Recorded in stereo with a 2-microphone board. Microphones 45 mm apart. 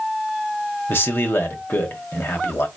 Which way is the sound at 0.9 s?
55° left (ahead or behind).